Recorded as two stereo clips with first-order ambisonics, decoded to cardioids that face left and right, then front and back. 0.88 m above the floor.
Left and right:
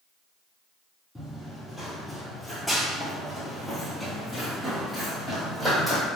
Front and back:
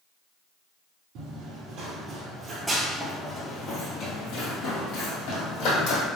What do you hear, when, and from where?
1.1 s running footsteps: straight behind, 1.2 m; by 6.1 s 5° right, 2.0 m